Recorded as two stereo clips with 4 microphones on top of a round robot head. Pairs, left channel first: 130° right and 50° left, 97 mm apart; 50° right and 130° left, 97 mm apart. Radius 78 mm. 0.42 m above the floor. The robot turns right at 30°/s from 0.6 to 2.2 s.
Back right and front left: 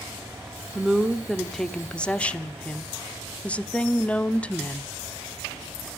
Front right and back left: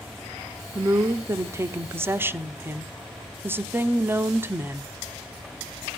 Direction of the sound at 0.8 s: 125° left.